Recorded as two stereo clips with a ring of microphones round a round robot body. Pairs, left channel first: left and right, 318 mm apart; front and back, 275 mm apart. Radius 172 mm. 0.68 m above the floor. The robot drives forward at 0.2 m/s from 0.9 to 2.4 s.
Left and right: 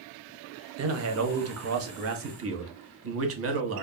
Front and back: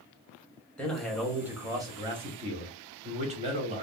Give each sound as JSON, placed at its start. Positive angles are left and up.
{"t": 0.8, "sound": "a man speaking", "azimuth_deg": -85, "distance_m": 0.7}